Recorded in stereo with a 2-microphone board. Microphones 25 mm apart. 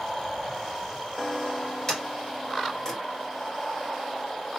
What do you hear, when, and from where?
1.9 s a sliding door: 30° left (ahead or behind), 3 m